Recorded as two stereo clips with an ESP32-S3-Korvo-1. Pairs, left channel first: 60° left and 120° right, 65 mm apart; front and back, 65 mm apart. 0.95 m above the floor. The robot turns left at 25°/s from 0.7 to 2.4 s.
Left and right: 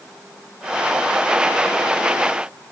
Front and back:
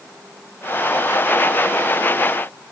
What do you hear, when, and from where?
Only background noise.